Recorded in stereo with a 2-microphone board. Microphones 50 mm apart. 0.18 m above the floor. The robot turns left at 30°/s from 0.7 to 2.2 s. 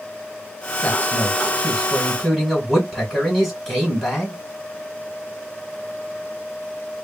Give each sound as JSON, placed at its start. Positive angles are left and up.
{"t": 0.8, "sound": "a man speaking", "azimuth_deg": 35, "distance_m": 2.0}